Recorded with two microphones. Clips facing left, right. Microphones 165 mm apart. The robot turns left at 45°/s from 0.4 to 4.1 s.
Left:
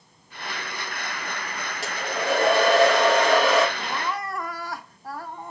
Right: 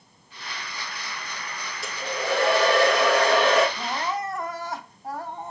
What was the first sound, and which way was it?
A hair dryer, 80° left.